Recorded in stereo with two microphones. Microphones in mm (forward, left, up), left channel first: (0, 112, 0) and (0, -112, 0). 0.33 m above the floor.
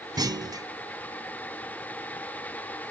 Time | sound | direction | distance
0.2 | a clunk | 15° right (ahead or behind) | 0.6 m